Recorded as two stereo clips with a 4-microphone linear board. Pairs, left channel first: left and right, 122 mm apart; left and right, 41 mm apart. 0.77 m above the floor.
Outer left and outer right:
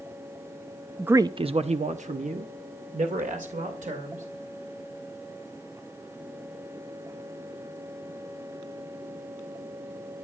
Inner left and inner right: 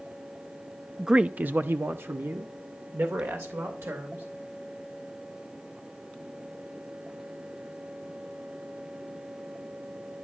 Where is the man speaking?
5° right (ahead or behind), 0.6 m; by 4.2 s 75° right (ahead or behind), 3.5 m.